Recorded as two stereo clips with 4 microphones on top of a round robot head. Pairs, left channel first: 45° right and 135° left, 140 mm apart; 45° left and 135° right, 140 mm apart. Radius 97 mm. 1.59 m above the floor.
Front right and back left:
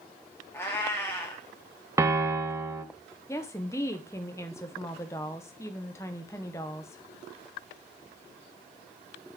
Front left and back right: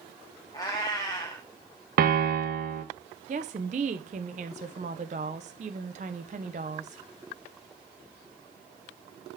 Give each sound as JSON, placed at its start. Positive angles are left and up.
{"t": 0.5, "sound": "a cat meowing", "azimuth_deg": 10, "distance_m": 1.1}
{"t": 2.0, "sound": "a piano", "azimuth_deg": -155, "distance_m": 0.9}
{"t": 3.3, "sound": "a woman speaking", "azimuth_deg": -110, "distance_m": 0.6}